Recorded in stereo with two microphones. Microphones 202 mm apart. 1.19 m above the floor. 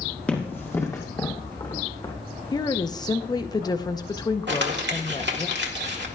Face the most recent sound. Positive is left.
turn(degrees=-70)  # may be behind; listen again after turning